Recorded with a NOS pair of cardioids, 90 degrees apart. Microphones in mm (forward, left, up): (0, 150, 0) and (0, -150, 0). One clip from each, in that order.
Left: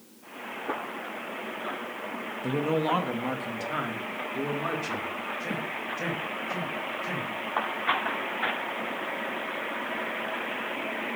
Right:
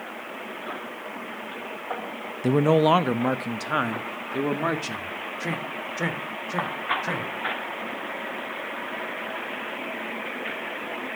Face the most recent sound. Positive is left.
turn(degrees=-50)